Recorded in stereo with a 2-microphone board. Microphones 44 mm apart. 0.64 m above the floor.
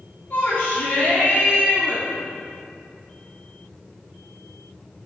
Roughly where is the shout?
Left.